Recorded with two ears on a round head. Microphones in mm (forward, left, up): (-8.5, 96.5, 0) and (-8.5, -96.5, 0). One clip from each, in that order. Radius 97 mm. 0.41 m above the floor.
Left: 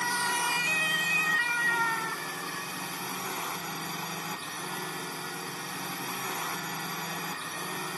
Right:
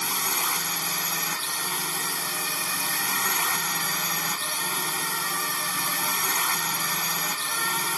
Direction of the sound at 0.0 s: 55° right (ahead or behind).